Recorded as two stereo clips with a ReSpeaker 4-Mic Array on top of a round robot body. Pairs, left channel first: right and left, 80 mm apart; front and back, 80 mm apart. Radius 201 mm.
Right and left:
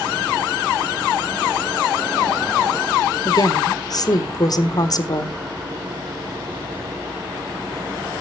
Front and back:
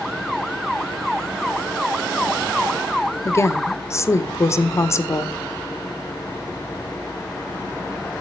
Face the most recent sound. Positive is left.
turn(degrees=-50)